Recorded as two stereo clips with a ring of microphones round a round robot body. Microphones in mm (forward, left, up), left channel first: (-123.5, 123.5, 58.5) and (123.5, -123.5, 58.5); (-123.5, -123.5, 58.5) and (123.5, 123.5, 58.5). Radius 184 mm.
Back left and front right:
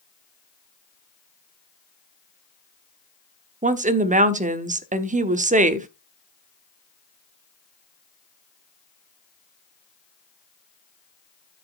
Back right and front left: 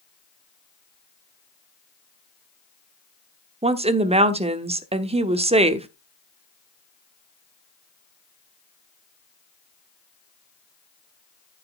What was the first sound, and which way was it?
A woman speaking, 5° right.